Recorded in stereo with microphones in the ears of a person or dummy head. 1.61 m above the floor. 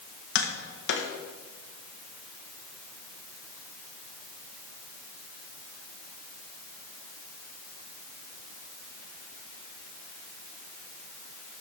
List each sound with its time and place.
0.3 s tapping: 75° left (ahead or behind), 1.5 m